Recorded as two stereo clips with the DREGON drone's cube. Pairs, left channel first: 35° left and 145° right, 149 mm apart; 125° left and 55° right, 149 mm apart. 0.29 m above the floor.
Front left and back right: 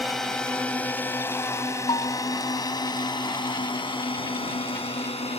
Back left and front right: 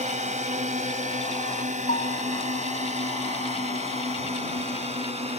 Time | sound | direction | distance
0.0 | a drone | 55° right | ?
1.9 | a bell | 95° left | ?